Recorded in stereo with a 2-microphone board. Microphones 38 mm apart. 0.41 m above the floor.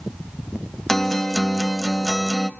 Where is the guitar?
10° left (ahead or behind), 1.0 m.